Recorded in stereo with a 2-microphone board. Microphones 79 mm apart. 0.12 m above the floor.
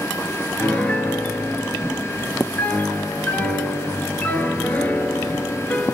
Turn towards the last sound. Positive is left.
turn(degrees=20)  # may be behind; listen again after turning